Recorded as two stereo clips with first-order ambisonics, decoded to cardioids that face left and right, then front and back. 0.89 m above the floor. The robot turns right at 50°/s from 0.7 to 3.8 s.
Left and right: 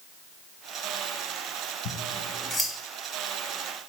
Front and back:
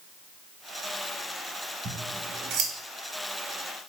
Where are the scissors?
125° left, 1.4 m; by 2.7 s 170° left, 1.4 m.